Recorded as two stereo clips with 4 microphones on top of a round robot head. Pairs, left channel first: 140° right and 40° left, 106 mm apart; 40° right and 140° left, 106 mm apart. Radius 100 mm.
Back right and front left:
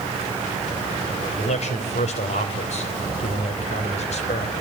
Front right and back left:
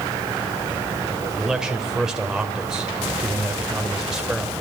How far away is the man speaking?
About 3 m.